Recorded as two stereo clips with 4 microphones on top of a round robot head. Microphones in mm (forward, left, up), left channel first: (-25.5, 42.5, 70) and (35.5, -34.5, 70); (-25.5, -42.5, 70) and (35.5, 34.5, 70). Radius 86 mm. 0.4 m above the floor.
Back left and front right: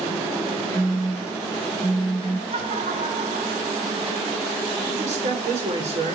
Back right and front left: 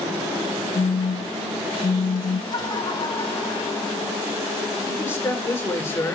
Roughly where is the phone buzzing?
Behind right.